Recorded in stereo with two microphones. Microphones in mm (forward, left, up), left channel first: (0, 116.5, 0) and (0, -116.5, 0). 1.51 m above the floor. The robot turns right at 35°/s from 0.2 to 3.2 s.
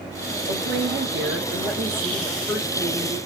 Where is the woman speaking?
75° right, 2.5 m; by 3.2 s 15° left, 2.5 m.